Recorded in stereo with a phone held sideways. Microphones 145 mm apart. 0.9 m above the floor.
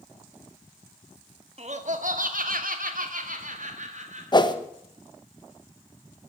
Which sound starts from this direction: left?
A whoosh, at 4.3 s.